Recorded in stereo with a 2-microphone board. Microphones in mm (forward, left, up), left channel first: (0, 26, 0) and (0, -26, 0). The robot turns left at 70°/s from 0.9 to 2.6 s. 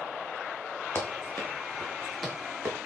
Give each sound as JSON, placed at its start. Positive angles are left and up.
{"t": 0.9, "sound": "running footsteps", "side_deg": 55, "distance_m": 5.5}